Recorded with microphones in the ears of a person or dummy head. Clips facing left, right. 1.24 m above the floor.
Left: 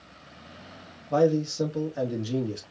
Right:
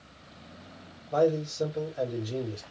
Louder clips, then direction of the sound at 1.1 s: Left 3 dB; 85° left.